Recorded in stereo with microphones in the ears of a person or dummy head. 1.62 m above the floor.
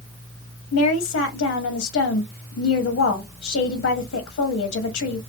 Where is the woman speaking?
75° left (ahead or behind), 0.7 m.